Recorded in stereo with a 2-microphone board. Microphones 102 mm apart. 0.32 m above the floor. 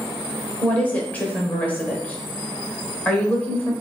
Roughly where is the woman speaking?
Centre.